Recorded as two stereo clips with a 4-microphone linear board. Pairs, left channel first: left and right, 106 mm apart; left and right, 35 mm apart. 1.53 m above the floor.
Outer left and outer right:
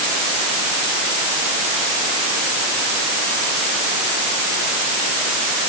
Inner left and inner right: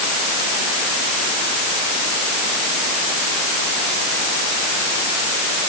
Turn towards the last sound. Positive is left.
No sound to turn to.